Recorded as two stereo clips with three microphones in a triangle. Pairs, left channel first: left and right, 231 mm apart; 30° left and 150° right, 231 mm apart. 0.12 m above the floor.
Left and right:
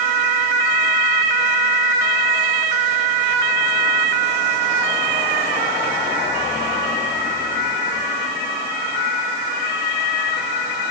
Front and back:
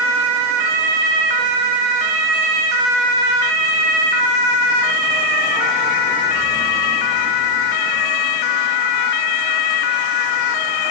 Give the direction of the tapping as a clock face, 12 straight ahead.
I don't hear tapping.